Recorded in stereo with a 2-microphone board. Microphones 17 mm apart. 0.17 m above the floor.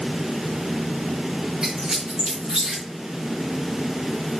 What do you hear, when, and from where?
1.6 s a squeak: 60° right (ahead or behind), 2.5 m